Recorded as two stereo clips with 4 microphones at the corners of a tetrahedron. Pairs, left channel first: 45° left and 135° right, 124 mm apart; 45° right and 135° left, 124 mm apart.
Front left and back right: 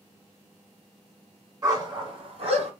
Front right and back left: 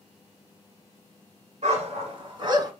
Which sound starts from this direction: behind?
A dog barking, at 1.6 s.